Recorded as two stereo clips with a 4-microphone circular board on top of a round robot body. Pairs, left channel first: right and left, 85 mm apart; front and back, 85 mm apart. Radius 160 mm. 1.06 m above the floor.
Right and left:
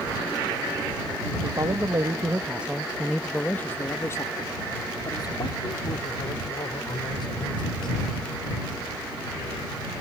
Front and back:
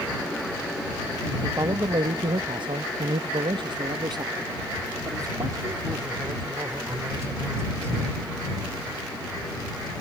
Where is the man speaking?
130° left; by 8.0 s 120° right.